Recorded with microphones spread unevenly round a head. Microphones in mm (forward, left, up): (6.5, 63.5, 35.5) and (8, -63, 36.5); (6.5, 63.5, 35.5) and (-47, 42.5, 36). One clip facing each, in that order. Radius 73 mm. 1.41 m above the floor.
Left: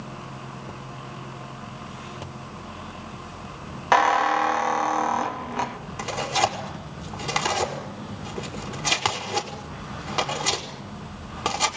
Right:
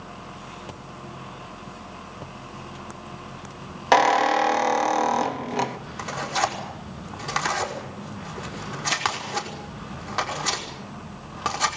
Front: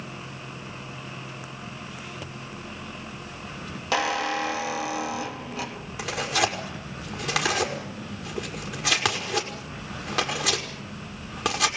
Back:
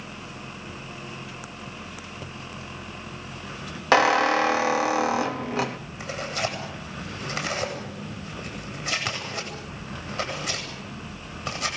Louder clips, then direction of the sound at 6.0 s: Left 2 dB, front 4 dB; 10° left.